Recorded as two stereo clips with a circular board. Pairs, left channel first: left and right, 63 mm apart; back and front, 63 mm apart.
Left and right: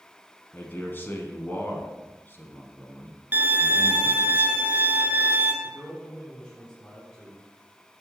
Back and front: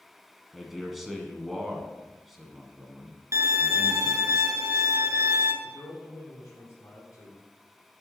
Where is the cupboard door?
No cupboard door in this recording.